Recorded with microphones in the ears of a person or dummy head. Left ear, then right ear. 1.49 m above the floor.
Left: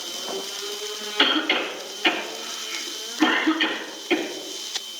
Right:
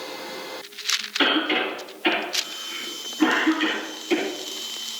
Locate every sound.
1.2 s a cough: 25° left (ahead or behind), 3 m